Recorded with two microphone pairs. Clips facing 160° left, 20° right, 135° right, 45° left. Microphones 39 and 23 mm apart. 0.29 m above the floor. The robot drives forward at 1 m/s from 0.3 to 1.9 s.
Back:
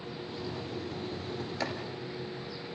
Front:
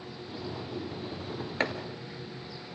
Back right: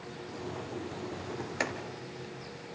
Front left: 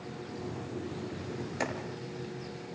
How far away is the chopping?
About 1.8 m.